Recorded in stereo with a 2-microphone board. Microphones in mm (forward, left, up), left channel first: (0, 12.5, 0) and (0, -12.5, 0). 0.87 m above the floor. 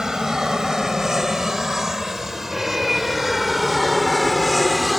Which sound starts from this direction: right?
An aircraft, at 0.0 s.